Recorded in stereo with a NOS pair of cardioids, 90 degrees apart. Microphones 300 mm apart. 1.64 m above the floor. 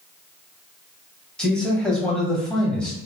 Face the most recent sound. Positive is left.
turn(degrees=5)